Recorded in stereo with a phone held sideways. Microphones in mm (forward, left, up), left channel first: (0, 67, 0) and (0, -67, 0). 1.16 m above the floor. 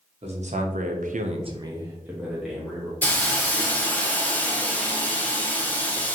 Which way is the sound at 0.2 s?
50° right (ahead or behind).